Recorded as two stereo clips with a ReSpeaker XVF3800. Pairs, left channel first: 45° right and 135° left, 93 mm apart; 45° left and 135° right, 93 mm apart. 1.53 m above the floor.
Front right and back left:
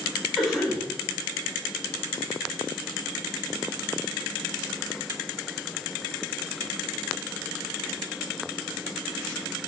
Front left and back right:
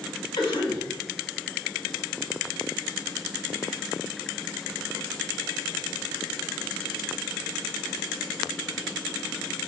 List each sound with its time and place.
0.4 s a cough: 50° left, 1.2 m